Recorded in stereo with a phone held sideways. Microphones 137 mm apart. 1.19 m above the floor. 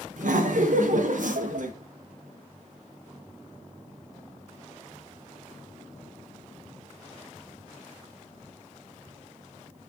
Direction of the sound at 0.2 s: 65° right (ahead or behind).